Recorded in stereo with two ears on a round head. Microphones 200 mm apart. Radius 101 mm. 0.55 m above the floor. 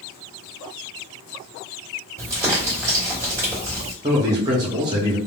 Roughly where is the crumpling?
Centre.